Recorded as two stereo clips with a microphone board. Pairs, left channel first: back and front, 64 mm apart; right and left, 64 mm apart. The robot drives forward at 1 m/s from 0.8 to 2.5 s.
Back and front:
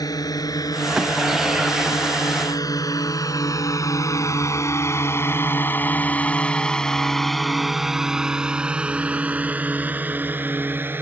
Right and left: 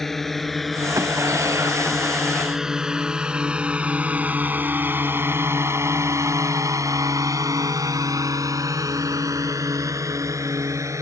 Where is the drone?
175° right; by 11.0 s 55° left.